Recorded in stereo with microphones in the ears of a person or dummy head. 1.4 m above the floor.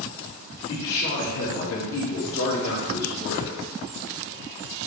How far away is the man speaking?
About 2 m.